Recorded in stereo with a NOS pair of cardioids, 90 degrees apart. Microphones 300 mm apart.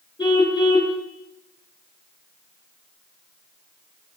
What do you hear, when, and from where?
0.2 s a car horn: 15° left, 8.5 m